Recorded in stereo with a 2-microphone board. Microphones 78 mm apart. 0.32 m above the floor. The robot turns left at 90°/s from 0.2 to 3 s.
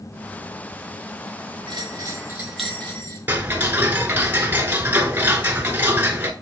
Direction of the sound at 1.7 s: 95° right.